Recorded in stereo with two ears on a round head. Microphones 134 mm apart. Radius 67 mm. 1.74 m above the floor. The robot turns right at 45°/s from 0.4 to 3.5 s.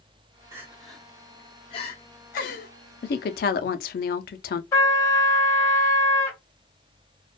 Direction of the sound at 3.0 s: 65° left (ahead or behind).